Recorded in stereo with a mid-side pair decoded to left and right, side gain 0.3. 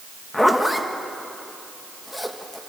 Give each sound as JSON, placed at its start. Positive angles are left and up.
{"t": 0.3, "sound": "a zipper", "azimuth_deg": 20, "distance_m": 2.0}